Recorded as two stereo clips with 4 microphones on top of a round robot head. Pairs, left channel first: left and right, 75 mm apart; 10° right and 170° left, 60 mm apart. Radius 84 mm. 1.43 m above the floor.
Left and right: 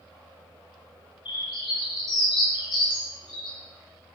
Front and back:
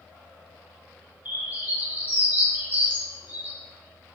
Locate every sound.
1.2 s a bird: 110° left, 2.5 m